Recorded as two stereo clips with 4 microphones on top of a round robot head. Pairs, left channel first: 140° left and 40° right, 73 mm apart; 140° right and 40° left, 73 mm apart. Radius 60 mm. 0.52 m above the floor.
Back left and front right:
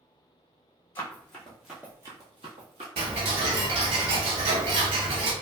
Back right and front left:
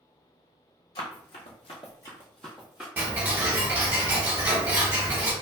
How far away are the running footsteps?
About 1.2 m.